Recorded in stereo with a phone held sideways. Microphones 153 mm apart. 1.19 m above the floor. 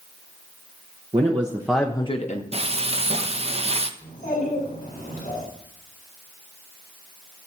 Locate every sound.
1.1 s a man speaking: 40° right (ahead or behind), 1.2 m; by 2.4 s 55° left (ahead or behind), 1.1 m
2.5 s frying: 40° right (ahead or behind), 0.7 m
4.0 s a child speaking: 55° left (ahead or behind), 6 m